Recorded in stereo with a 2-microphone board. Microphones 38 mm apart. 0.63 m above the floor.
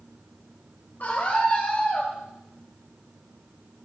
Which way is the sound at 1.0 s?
50° left (ahead or behind).